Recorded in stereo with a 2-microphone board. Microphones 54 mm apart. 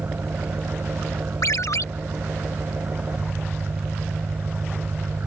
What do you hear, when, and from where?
0.0 s an engine running: 45° right (ahead or behind)
1.4 s a ringtone: 70° left (ahead or behind)